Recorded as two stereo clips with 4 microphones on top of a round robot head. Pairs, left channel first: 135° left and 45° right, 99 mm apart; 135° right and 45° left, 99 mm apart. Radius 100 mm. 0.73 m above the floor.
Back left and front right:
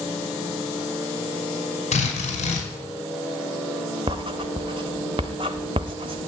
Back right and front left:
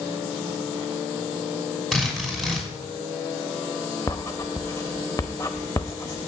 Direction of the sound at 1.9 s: 140° left.